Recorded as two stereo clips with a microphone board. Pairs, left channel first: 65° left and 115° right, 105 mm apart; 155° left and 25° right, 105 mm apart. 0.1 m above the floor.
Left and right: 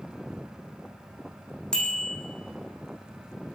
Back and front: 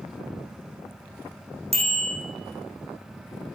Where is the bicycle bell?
15° right, 3.5 m.